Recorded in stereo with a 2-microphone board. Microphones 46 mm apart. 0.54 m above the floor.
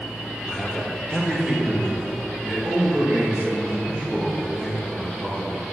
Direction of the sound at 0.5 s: 15° left (ahead or behind).